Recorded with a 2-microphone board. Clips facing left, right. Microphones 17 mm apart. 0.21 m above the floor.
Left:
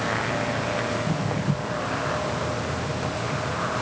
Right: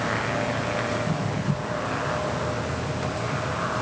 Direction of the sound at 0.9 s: 80° left.